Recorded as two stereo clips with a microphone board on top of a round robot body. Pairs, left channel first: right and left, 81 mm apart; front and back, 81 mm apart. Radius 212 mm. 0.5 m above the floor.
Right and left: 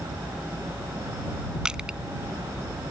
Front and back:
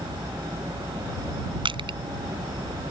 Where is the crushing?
170° left.